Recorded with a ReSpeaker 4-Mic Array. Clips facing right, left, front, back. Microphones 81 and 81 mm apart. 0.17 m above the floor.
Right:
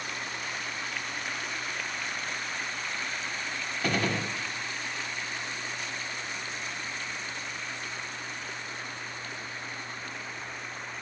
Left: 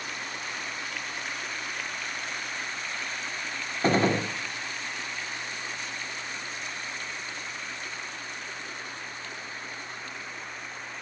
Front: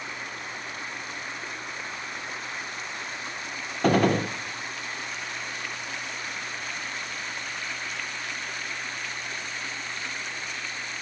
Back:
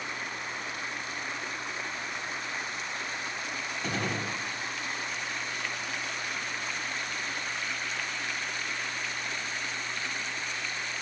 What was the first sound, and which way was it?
A gunshot, 30° left.